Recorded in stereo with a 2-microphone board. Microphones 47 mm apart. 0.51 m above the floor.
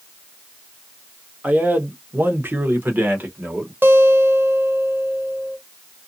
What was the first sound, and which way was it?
A man speaking, 30° right (ahead or behind).